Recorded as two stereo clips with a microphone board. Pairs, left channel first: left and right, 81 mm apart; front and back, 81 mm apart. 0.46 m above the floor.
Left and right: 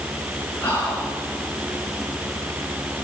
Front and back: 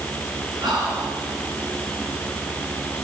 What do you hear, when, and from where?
0.6 s whispering: 155° left, 6.5 m